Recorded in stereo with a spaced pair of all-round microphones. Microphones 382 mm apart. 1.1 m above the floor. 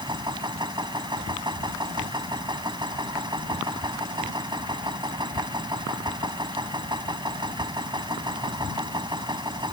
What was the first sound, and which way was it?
A machine running, 10° right (ahead or behind).